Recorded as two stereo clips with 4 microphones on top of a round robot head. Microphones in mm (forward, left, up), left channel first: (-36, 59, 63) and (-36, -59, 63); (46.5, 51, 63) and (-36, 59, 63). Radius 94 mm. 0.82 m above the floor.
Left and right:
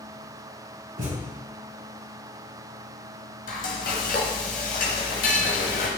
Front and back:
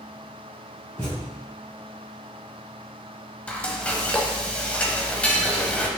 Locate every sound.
1.0 s a thud: 75° right, 3 m
3.5 s frying: 70° left, 0.9 m